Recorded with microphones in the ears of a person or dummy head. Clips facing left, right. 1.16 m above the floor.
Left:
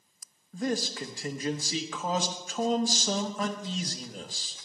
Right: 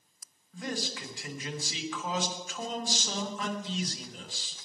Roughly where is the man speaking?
Left.